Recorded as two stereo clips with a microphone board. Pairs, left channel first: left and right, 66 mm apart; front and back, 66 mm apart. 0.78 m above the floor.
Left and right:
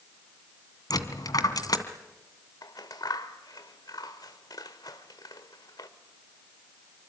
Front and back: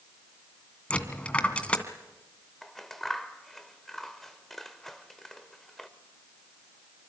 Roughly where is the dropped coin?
Left.